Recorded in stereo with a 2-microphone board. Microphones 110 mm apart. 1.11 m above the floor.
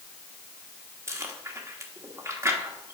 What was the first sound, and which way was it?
Chewing, 25° right (ahead or behind).